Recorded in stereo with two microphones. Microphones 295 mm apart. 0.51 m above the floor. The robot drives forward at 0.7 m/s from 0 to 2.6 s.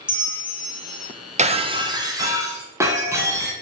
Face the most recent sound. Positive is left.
turn(degrees=-10)  # may be behind; listen again after turning